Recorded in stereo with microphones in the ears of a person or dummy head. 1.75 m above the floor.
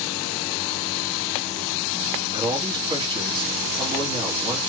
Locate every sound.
2.3 s a man speaking: 20° right (ahead or behind), 1.4 m